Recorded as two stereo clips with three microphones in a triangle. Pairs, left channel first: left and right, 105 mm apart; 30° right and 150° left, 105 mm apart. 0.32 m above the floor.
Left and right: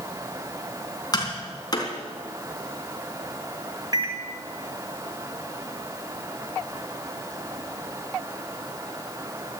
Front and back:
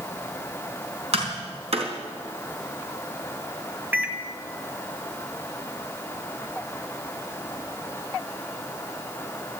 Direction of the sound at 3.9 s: 135° right.